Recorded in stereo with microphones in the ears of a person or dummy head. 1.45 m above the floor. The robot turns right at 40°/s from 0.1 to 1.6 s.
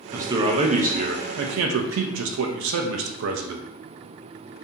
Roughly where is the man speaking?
Behind.